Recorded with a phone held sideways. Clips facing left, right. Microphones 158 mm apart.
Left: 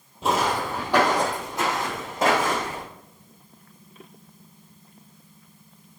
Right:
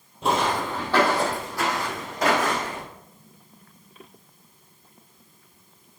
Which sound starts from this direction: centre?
Footsteps, at 0.2 s.